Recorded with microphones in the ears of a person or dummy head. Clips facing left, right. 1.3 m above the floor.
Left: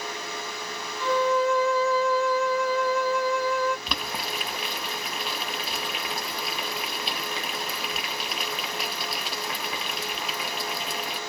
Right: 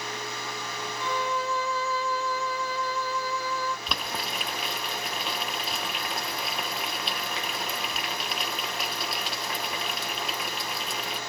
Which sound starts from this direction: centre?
Boiling, at 3.9 s.